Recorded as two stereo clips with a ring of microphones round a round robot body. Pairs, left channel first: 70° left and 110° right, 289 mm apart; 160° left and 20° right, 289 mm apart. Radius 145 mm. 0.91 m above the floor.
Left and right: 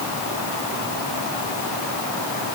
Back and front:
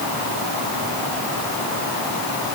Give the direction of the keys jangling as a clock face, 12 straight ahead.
I don't hear keys jangling.